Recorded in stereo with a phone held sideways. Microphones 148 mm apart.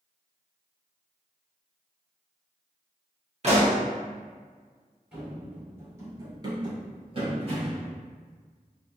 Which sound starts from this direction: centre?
Running footsteps, at 5.1 s.